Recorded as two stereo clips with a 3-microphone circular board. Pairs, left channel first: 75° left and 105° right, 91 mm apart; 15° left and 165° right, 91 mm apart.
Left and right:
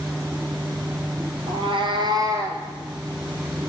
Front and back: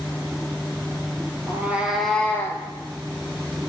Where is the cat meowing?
100° right, 0.9 m; by 2.6 s 40° right, 0.9 m.